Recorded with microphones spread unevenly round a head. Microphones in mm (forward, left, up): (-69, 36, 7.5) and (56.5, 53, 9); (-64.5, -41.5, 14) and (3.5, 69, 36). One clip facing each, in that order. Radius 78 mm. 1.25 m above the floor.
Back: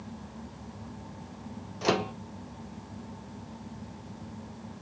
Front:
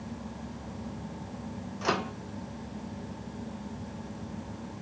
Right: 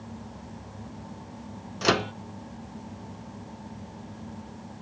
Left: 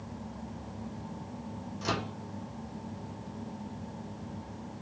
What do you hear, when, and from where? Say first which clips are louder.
1.8 s a microwave: back 3 dB, right 10 dB; 100° right, 0.7 m